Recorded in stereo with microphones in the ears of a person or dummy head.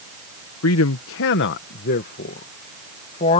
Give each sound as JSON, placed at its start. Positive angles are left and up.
{"t": 0.6, "sound": "a man speaking", "side_deg": 80}